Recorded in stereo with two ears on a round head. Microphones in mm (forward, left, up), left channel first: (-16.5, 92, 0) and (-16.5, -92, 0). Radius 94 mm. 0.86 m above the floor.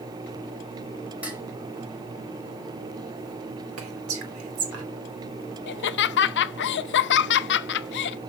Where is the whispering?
80° right, 3.5 m.